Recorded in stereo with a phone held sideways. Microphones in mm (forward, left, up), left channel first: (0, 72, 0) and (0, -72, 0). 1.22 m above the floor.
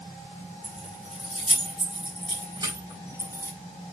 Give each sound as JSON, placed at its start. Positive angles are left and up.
{"t": 0.6, "sound": "keys jangling", "side_deg": -50, "distance_m": 5.5}